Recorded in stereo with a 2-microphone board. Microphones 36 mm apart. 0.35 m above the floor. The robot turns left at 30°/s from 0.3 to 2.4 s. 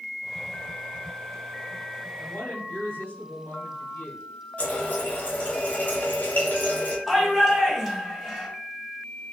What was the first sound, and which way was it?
A woman speaking, 65° left (ahead or behind).